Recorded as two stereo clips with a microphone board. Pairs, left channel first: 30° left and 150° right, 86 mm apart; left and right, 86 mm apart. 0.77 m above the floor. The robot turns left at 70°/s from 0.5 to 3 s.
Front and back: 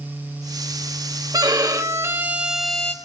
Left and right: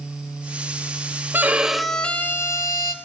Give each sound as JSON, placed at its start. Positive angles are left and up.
{"t": 1.3, "sound": "a violin", "azimuth_deg": -150, "distance_m": 0.6}